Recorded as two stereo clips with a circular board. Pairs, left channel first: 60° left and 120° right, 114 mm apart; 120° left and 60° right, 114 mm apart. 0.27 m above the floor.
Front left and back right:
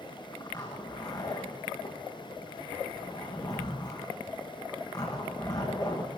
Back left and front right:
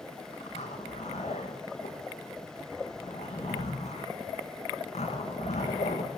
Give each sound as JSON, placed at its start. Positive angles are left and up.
{"t": 0.3, "sound": "a zipper", "azimuth_deg": 115, "distance_m": 6.0}